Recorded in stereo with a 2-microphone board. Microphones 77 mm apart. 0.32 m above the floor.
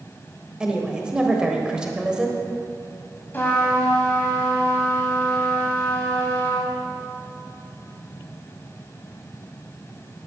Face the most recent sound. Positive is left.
turn(degrees=30)  # may be behind; listen again after turning